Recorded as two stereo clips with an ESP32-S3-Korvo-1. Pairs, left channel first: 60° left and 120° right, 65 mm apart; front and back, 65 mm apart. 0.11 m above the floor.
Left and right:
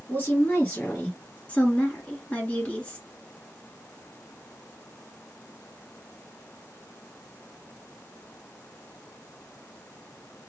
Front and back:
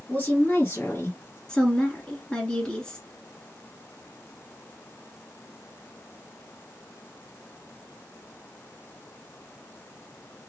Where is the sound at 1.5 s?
50° left, 1.4 m.